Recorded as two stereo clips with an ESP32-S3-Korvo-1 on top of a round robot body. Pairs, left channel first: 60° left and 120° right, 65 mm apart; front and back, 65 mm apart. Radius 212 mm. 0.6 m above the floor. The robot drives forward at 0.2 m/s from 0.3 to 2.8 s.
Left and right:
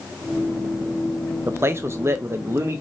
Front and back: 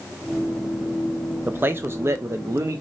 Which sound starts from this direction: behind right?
A man speaking, at 1.5 s.